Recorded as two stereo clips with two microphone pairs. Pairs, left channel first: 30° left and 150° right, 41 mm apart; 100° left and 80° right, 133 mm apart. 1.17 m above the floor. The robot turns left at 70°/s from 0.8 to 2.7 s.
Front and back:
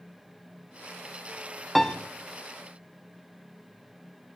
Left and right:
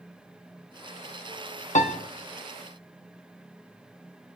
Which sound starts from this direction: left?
A piano, at 1.8 s.